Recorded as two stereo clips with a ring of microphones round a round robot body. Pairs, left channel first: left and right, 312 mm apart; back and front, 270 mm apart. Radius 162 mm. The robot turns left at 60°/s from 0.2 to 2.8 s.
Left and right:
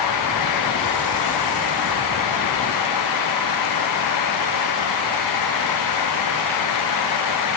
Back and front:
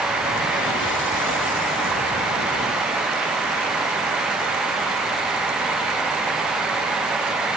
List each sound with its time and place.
Only background noise.